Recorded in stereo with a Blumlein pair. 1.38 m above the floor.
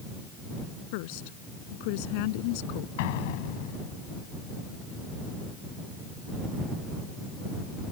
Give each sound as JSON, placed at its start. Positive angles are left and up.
{"t": 0.9, "sound": "a woman speaking", "azimuth_deg": 45}
{"t": 3.0, "sound": "an explosion", "azimuth_deg": 50}